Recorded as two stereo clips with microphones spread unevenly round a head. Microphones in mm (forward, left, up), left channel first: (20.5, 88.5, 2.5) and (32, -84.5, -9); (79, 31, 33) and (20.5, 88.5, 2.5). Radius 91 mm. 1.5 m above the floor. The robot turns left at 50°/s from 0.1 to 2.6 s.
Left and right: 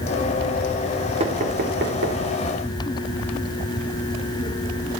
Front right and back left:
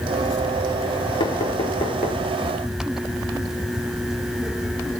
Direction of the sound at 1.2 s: 30° right.